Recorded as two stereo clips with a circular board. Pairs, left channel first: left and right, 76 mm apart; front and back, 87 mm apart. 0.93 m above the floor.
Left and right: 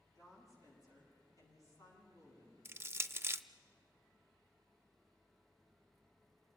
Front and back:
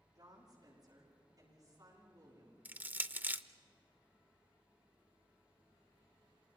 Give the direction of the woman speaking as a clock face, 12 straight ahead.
8 o'clock.